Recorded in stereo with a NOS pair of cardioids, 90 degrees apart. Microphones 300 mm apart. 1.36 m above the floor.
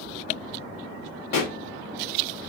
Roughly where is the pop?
Ahead left.